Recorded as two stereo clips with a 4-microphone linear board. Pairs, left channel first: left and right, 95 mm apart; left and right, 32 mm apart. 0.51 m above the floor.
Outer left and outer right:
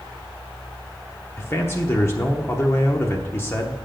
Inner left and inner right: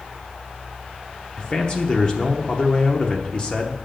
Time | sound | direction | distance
1.4 | a man speaking | 25° left (ahead or behind) | 0.9 m